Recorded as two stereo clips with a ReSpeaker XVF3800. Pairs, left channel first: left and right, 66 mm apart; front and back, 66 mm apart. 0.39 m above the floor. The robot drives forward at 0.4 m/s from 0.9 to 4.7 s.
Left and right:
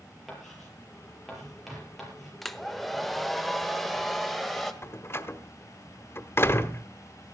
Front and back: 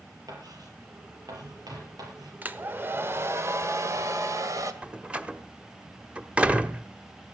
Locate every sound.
0.3 s writing: straight behind, 7.5 m
2.4 s a hair dryer: 175° left, 1.0 m; by 4.7 s straight behind, 1.6 m
4.8 s a door slam: 115° left, 1.1 m